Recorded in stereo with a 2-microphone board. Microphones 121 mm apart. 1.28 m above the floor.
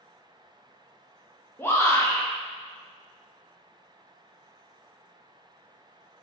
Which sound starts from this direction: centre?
A shout, at 1.6 s.